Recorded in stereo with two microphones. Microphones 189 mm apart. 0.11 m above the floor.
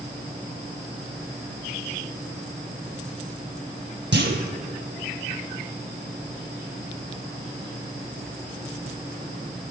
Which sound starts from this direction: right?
A clunk, at 4.1 s.